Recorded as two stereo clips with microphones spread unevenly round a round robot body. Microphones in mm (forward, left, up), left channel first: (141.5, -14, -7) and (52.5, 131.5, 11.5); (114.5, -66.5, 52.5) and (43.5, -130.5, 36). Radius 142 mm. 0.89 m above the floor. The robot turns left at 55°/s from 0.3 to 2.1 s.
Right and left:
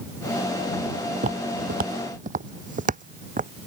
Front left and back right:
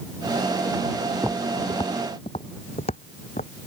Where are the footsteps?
150° left; by 3.5 s 85° left.